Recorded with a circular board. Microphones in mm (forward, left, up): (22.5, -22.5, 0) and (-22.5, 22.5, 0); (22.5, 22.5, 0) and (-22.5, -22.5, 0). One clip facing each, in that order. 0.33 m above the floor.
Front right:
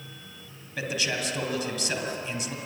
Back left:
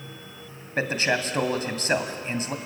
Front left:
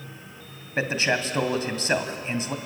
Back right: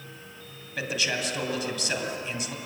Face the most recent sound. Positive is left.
turn(degrees=95)